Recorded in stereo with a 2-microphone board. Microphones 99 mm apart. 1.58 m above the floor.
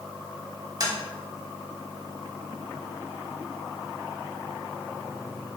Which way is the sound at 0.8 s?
40° right (ahead or behind).